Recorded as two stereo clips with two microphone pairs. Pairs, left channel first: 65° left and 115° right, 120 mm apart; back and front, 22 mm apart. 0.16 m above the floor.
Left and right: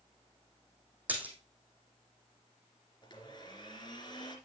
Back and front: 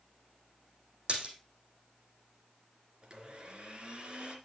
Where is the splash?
35° right, 2.5 m.